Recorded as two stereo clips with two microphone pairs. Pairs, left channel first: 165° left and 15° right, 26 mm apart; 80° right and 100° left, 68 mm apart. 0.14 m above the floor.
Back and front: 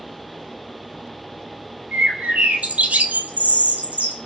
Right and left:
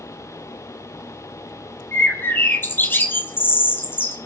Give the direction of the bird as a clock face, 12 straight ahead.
1 o'clock.